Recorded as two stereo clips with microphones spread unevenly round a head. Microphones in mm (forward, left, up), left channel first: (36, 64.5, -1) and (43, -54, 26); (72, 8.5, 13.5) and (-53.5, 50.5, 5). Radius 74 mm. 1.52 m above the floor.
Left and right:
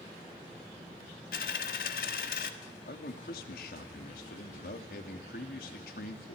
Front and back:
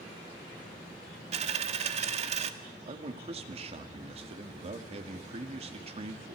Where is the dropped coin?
125° left, 1.6 m.